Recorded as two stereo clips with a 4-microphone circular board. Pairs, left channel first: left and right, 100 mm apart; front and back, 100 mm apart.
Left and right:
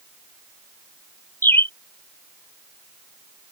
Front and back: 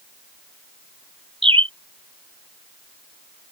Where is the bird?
155° left.